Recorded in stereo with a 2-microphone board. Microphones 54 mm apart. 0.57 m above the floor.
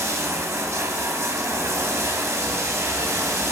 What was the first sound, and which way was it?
Running water, 65° right (ahead or behind).